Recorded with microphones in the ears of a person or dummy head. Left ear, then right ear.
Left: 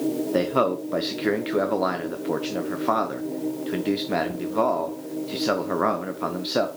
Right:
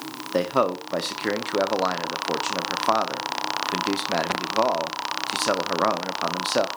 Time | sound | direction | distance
0.3 | a man speaking | 20° right (ahead or behind) | 0.9 m